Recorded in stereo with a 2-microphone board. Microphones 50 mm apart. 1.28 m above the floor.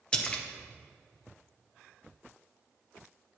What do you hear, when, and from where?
0.1 s a splash: 15° left (ahead or behind), 1.2 m